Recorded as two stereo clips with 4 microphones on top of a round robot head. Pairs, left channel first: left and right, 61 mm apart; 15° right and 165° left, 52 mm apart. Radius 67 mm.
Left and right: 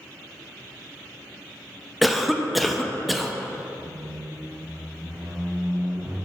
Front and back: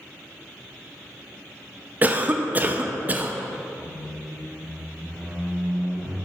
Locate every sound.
2.0 s a cough: straight behind, 0.5 m
3.8 s a squeak: 80° right, 2 m